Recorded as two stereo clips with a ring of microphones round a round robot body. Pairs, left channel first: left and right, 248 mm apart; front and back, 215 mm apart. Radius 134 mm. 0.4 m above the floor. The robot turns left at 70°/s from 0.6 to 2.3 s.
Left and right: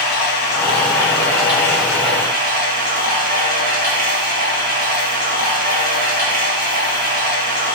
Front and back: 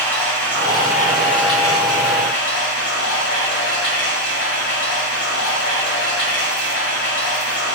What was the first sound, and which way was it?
Running water, 80° left.